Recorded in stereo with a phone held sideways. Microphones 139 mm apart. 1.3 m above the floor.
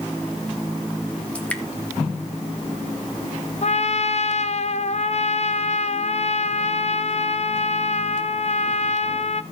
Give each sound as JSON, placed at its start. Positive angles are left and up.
{"t": 1.4, "sound": "dripping", "side_deg": 10, "distance_m": 1.3}
{"t": 3.6, "sound": "a trumpet", "side_deg": 55, "distance_m": 0.6}